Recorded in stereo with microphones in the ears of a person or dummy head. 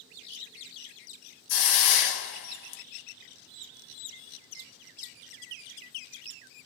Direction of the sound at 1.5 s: 65° left (ahead or behind).